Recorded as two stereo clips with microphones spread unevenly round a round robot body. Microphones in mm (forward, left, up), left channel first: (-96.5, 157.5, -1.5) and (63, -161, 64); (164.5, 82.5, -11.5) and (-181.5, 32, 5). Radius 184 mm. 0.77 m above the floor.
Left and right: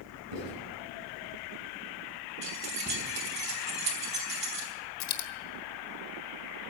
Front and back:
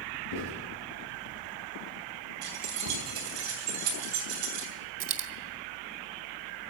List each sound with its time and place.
0.3 s writing: 35° right, 6.5 m
2.4 s keys jangling: 135° right, 3.5 m
5.0 s a dropped coin: 155° left, 1.3 m